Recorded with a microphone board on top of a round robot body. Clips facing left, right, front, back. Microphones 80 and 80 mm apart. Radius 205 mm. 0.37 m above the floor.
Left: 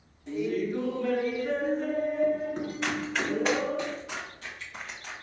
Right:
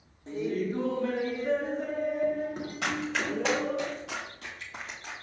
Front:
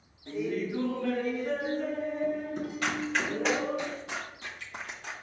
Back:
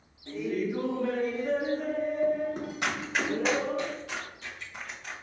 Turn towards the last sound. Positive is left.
turn(degrees=-25)